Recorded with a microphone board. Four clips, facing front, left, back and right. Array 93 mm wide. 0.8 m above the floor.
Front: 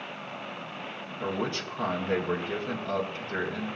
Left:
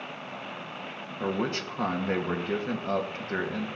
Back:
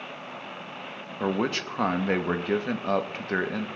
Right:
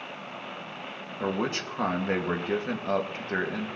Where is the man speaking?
170° right, 0.7 m.